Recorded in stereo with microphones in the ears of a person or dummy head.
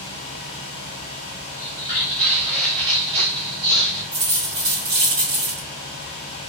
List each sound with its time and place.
1.6 s footsteps: 10° left (ahead or behind), 2.0 m; by 4.0 s 45° right (ahead or behind), 2.5 m
4.1 s a dropped coin: 20° right (ahead or behind), 1.1 m